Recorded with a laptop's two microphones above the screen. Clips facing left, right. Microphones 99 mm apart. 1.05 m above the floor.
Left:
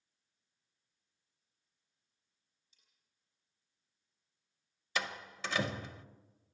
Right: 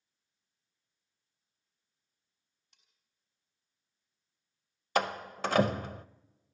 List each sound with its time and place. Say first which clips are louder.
2.7 s cutlery clinking: right 4 dB; 70° right (ahead or behind), 4.5 m
5.0 s a door slam: right 9 dB; 50° right (ahead or behind), 0.7 m